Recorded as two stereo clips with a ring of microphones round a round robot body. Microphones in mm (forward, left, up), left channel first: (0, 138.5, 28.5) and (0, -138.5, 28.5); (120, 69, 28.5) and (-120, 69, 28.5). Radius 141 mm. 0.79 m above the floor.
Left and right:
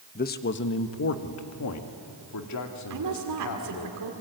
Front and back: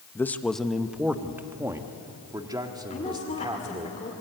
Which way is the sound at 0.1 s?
70° left.